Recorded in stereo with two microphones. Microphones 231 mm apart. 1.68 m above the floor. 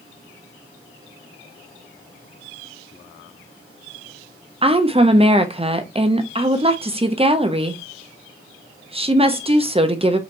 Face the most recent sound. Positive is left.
turn(degrees=-25)  # may be behind; listen again after turning